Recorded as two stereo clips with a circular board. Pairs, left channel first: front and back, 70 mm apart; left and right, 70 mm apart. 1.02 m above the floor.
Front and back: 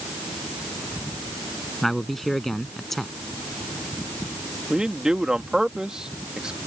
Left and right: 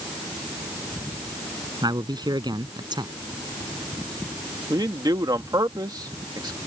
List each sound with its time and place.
1.8 s a man speaking: 85° right
4.7 s a man speaking: 100° right